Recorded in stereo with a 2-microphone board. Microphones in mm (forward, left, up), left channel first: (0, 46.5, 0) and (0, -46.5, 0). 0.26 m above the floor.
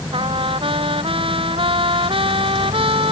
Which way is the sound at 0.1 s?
70° right (ahead or behind).